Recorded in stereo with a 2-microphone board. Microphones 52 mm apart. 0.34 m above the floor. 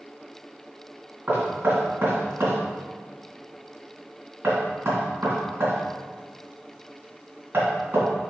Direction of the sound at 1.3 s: 50° right (ahead or behind).